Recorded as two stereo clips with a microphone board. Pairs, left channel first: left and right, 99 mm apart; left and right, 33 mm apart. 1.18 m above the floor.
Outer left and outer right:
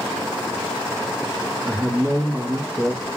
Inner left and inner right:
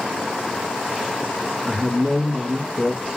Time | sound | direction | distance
1.6 | a man speaking | 30° right (ahead or behind) | 1.3 m